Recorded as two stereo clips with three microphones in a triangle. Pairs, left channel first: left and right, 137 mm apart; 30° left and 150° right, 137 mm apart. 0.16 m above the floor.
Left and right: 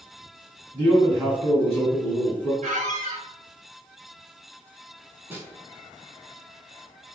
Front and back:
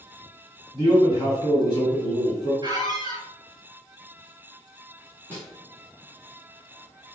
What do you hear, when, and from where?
0.7 s a man speaking: 25° left, 1.8 m
2.6 s a squeak: 90° right, 0.8 m
5.3 s a snare drum: 30° right, 1.2 m